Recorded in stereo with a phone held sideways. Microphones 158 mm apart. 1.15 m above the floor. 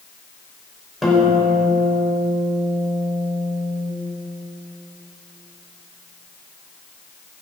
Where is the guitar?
Centre (ahead or behind), 4.5 m.